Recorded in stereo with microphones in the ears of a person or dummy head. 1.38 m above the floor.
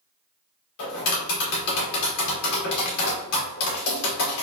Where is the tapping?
65° left (ahead or behind), 1.8 m.